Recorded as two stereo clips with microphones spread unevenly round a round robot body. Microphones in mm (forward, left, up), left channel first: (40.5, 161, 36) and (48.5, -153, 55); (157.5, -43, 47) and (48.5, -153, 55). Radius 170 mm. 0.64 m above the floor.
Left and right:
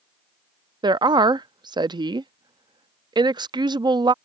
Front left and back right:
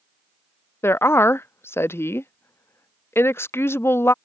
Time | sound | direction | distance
0.8 | a woman speaking | 15° right | ?